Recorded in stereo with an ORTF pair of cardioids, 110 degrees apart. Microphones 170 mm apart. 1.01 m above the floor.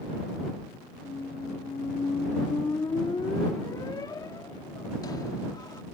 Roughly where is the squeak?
Ahead left.